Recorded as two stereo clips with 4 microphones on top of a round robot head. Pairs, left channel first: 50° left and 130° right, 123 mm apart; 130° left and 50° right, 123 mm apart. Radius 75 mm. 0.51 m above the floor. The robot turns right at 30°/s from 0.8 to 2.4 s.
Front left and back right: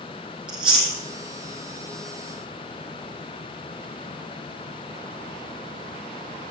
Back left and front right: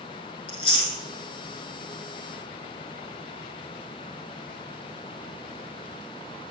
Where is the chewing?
175° left, 3 m; by 1.0 s straight behind, 3 m.